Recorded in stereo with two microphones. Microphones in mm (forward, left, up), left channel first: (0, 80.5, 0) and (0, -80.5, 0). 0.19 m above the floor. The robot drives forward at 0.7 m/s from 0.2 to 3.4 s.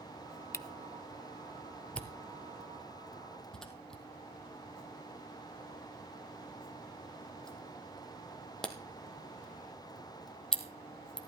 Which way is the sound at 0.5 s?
20° left (ahead or behind).